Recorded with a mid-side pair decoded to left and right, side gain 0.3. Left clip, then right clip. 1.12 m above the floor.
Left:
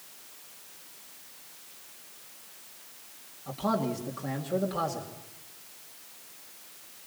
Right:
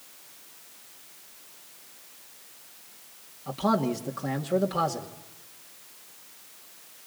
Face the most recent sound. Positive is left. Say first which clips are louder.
# right 4 dB
turn(degrees=-50)